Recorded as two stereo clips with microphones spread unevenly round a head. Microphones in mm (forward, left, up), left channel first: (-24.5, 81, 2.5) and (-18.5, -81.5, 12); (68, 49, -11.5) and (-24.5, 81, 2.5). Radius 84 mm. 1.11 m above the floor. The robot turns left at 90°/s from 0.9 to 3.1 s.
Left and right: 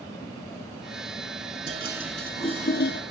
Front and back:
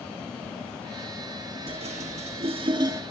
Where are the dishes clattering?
135° right, 1.9 m; by 3.0 s 100° left, 1.9 m.